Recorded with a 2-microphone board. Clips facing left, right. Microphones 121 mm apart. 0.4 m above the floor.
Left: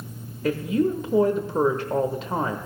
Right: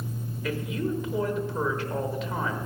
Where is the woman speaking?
40° left (ahead or behind), 1.0 m.